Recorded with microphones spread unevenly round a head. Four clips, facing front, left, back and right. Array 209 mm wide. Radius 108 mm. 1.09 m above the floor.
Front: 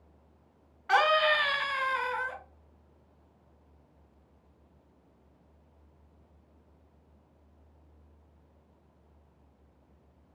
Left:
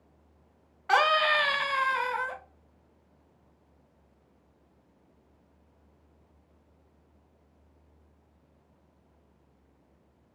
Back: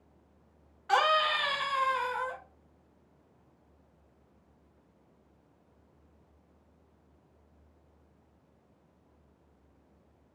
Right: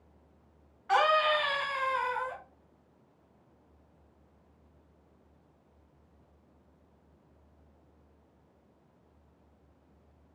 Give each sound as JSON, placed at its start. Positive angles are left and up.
{"t": 0.9, "sound": "a scream", "azimuth_deg": 80, "distance_m": 1.5}